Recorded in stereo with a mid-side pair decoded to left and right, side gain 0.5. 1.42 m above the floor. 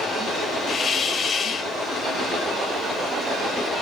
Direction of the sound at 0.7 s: 45° left.